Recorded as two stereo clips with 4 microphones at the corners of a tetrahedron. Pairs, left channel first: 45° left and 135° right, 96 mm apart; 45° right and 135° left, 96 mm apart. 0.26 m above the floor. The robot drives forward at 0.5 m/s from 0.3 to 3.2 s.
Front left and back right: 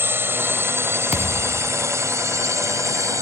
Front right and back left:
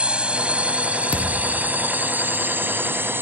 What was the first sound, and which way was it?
A drone, 160° right.